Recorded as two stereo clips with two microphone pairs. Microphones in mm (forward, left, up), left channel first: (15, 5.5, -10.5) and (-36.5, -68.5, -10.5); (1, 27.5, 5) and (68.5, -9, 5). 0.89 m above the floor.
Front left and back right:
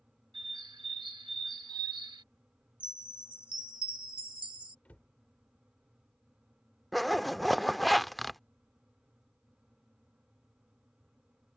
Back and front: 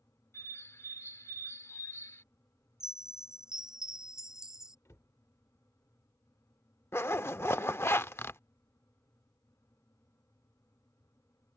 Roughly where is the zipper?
Behind left.